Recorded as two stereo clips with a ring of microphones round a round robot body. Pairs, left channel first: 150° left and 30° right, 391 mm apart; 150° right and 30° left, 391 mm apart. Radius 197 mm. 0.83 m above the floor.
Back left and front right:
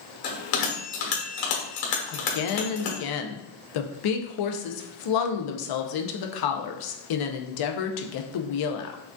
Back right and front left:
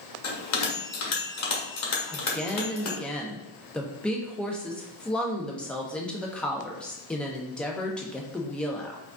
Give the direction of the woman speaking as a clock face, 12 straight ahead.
8 o'clock.